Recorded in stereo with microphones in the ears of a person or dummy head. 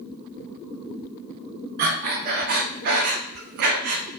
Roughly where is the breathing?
Right.